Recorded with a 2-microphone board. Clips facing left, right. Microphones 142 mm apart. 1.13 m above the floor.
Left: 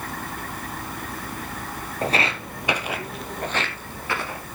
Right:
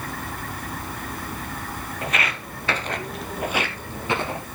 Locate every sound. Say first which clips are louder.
2.0 s footsteps: left 4 dB; 40° left (ahead or behind), 1.6 m; by 4.5 s 25° right (ahead or behind), 2.5 m